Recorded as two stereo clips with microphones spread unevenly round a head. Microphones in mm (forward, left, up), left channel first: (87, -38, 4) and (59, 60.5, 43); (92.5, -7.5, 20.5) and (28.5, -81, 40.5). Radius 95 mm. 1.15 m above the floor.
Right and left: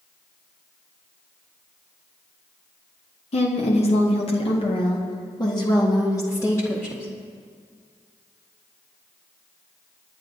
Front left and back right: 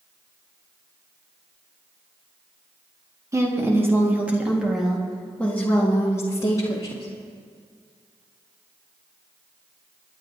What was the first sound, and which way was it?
A woman speaking, 70° right.